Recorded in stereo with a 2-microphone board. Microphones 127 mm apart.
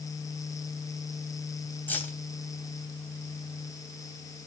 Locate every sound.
1.9 s keys jangling: 15° left (ahead or behind), 1.8 m